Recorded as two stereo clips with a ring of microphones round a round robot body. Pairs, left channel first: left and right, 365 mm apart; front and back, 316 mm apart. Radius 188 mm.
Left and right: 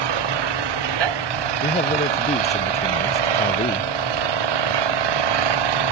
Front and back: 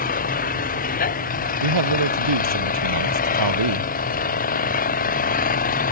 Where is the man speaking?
165° left.